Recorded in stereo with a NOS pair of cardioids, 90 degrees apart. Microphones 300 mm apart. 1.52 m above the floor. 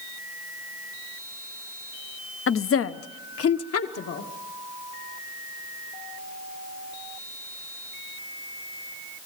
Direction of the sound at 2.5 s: 45° left.